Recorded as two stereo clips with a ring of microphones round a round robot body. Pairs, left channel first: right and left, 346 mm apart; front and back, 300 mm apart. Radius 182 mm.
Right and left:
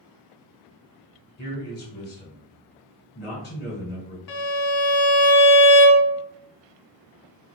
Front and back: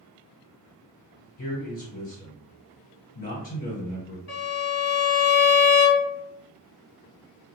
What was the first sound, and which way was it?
A man speaking, 45° right.